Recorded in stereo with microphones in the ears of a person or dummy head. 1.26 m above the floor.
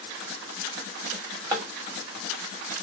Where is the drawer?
20° right (ahead or behind), 1.1 m.